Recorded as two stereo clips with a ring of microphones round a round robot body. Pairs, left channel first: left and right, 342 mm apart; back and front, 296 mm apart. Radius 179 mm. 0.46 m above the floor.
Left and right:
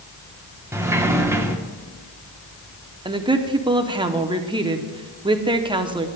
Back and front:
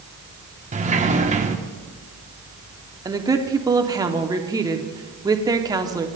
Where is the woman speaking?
50° right, 0.8 m.